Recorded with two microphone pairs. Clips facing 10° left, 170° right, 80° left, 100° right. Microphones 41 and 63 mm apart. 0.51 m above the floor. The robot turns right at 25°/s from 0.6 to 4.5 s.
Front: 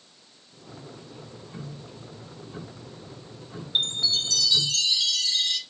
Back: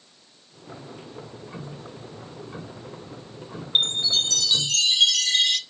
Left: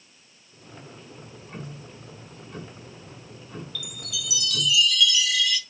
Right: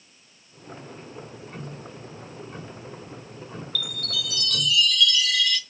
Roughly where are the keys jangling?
I don't hear keys jangling.